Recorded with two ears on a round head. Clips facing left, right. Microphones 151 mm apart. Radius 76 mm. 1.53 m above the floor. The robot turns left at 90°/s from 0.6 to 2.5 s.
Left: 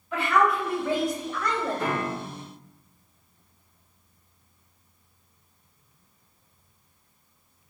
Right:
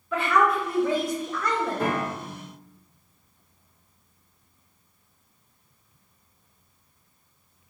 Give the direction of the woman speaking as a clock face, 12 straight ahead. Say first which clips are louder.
Right 1 dB; 3 o'clock.